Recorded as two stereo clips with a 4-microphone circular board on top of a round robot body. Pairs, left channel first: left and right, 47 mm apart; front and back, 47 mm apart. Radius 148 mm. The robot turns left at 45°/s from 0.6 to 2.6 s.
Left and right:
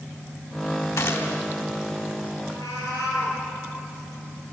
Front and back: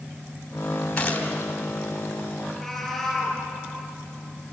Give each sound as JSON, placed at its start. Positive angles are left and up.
{"t": 1.0, "sound": "a gunshot", "azimuth_deg": 70, "distance_m": 2.5}
{"t": 2.5, "sound": "a cat meowing", "azimuth_deg": 90, "distance_m": 6.5}